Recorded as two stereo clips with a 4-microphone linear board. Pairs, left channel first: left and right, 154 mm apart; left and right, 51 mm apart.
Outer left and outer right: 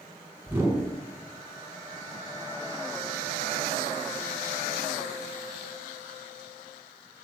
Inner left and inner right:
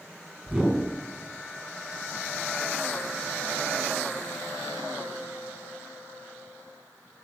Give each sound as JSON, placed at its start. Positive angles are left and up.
{"t": 0.5, "sound": "a whoosh", "side_deg": -10, "distance_m": 4.5}